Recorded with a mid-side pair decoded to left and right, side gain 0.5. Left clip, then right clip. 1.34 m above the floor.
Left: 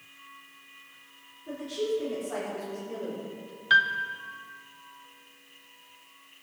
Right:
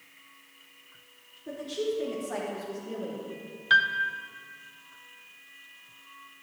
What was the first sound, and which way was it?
A woman speaking, 40° right.